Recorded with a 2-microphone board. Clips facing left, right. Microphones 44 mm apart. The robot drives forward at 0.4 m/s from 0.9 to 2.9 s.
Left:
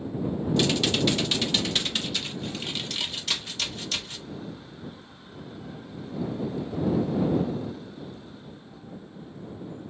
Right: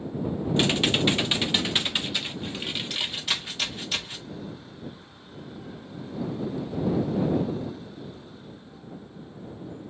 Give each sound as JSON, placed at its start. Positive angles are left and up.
{"t": 0.6, "sound": "typing on a keyboard", "side_deg": -30, "distance_m": 0.8}